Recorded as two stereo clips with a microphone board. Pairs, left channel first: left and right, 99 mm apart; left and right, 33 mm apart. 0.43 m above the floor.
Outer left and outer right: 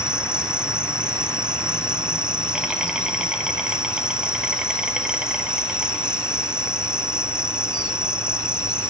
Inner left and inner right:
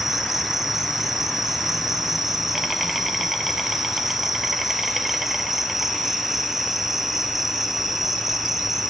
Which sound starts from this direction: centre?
An insect, at 0.0 s.